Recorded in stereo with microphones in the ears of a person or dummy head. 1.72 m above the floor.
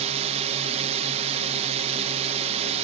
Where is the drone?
35° right (ahead or behind).